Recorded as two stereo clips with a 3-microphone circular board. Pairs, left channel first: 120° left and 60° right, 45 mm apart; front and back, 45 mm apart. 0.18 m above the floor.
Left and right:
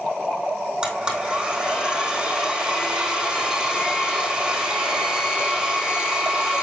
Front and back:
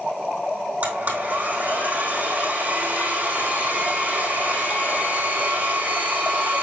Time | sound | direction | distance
0.8 | a blender | 135° right | 3.5 m